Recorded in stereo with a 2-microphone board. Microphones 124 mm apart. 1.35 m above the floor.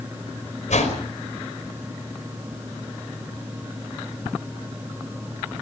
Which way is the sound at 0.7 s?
70° left (ahead or behind).